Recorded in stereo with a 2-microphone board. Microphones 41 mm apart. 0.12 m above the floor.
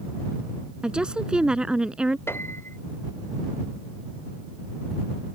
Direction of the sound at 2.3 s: 70° left (ahead or behind).